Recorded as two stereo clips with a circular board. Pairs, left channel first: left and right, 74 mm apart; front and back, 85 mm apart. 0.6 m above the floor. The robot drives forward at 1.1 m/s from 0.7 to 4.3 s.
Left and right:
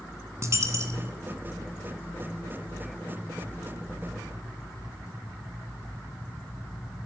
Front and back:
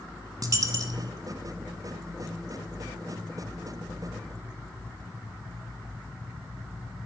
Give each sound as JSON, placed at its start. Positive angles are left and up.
{"t": 0.4, "sound": "a dropped coin", "azimuth_deg": -140, "distance_m": 1.8}